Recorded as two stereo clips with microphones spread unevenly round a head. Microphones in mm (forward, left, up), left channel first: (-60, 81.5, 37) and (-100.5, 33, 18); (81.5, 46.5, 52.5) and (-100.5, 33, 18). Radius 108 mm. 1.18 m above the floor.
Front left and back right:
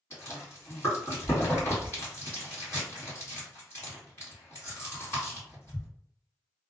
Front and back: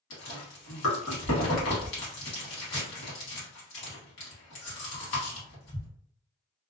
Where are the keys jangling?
No keys jangling in this recording.